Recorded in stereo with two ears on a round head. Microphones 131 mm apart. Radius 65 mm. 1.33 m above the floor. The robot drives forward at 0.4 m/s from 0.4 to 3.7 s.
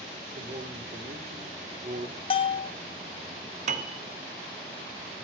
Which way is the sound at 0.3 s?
40° right (ahead or behind).